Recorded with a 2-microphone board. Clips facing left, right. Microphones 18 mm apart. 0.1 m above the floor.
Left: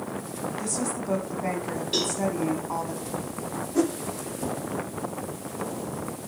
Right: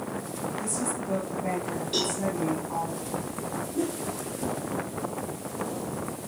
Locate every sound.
0.6 s a woman speaking: 35° left (ahead or behind), 5 m
1.9 s a cowbell: 20° left (ahead or behind), 6.5 m
3.8 s a whoosh: 75° left (ahead or behind), 1.9 m